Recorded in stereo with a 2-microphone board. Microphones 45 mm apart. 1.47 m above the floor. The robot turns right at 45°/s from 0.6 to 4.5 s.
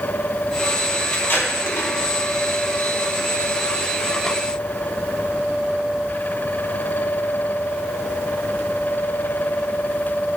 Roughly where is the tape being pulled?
Left.